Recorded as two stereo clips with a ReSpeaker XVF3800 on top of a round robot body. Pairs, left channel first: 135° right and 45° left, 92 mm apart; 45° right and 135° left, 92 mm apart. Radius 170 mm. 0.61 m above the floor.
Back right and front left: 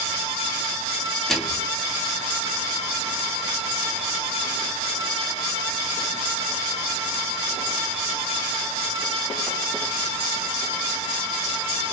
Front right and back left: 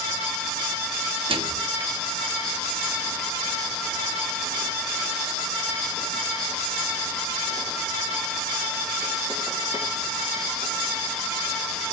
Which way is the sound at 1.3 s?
140° left.